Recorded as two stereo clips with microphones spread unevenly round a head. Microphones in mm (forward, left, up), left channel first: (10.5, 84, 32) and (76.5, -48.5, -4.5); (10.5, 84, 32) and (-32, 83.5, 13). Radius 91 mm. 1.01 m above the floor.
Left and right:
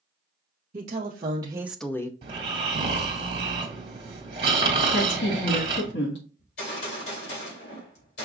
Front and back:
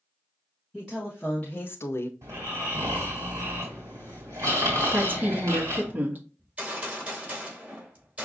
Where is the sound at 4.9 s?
150° left, 1.4 m.